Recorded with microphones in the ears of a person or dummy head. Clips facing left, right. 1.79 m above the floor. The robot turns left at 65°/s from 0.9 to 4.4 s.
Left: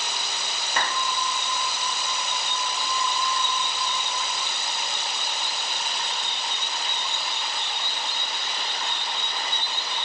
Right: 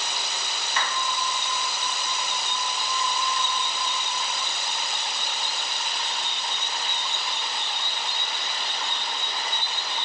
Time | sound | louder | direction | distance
0.8 | a clap | left 2 dB | 35° left (ahead or behind) | 1.0 m